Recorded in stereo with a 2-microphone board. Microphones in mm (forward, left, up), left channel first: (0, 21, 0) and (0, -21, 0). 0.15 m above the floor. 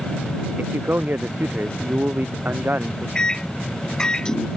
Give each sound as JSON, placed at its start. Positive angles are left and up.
{"t": 0.6, "sound": "a man speaking", "side_deg": -45}
{"t": 3.1, "sound": "a microwave", "side_deg": 15}